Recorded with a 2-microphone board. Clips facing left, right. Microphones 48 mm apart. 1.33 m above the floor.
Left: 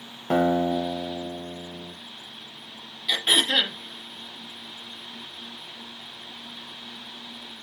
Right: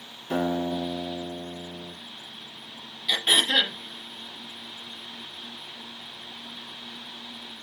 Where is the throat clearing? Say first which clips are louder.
Even; 5° left (ahead or behind), 0.7 m.